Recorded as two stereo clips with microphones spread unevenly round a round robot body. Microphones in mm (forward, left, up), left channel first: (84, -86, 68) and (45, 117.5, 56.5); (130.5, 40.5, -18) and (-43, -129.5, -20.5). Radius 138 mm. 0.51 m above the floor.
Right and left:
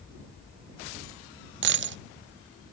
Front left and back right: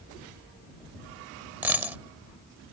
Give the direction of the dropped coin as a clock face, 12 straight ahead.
7 o'clock.